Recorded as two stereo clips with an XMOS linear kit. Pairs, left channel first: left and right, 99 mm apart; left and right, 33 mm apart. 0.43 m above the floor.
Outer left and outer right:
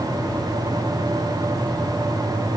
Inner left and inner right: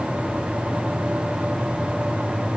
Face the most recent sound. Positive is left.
No sound to turn to.